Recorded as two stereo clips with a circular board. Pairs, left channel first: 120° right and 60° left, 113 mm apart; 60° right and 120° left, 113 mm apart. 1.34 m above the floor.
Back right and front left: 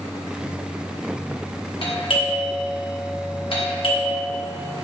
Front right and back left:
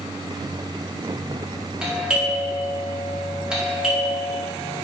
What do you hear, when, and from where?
1.8 s a doorbell: 155° right, 1.7 m